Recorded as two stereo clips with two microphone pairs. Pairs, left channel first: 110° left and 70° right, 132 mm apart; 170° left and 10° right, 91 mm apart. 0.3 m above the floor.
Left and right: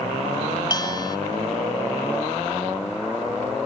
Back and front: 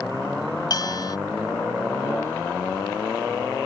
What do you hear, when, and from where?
0.7 s a bell: 155° left